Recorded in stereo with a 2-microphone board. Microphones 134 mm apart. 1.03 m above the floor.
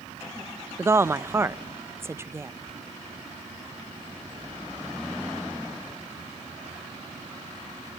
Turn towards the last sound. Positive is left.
turn(degrees=-20)  # may be behind; listen again after turning